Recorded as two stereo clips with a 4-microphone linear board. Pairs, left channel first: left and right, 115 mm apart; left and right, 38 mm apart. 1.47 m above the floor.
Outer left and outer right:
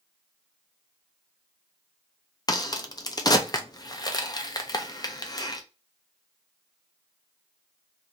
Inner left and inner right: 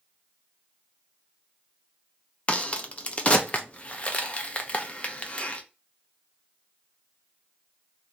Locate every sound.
2.5 s a crack: 35° left (ahead or behind), 0.6 m